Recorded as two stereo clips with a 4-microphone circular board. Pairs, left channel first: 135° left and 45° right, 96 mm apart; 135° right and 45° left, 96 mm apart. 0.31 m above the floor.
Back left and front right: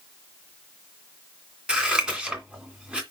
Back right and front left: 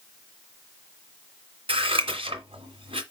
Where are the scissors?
35° left, 2 m.